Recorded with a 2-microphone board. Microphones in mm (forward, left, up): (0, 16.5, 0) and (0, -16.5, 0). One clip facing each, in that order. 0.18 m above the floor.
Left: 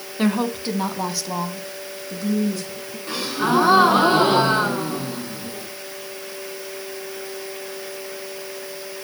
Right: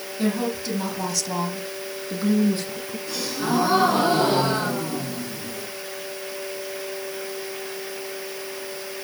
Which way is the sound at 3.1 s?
40° left (ahead or behind).